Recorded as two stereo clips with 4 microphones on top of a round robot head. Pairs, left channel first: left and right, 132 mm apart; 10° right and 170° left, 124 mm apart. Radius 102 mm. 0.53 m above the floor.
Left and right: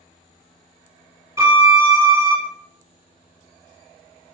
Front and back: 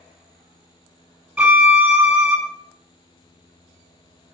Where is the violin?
120° right, 1.4 m.